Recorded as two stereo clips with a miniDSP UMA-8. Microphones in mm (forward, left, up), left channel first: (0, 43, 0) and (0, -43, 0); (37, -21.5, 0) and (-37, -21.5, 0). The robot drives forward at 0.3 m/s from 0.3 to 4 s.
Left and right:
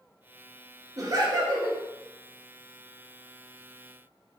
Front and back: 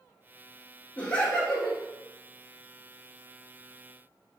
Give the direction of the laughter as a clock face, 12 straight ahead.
2 o'clock.